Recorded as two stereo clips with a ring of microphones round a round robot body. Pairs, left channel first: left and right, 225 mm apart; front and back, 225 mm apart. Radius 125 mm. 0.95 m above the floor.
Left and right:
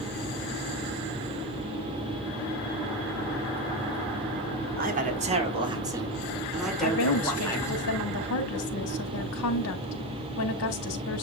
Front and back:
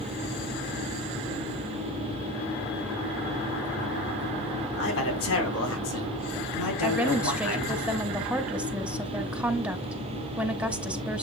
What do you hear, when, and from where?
4.8 s a man speaking: 40° right, 4 m; by 7.8 s 15° left, 5.5 m
6.8 s a woman speaking: 95° left, 2.5 m